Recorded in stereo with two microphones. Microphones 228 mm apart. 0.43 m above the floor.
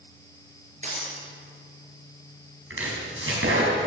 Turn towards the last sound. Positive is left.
turn(degrees=-65)  # may be behind; listen again after turning